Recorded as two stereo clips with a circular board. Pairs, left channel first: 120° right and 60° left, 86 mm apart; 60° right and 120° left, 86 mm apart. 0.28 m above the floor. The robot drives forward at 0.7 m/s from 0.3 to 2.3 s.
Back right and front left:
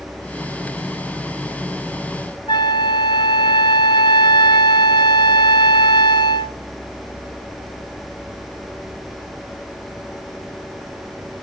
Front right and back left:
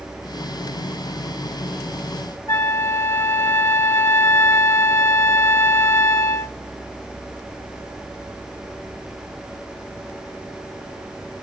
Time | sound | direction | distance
2.5 | a flute | 115° right | 0.8 m